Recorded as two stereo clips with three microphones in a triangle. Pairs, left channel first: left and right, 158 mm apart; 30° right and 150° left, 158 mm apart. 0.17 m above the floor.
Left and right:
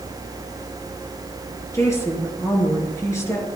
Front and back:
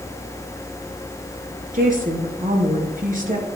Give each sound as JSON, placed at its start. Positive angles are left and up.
{"t": 1.7, "sound": "a woman speaking", "azimuth_deg": 160, "distance_m": 2.5}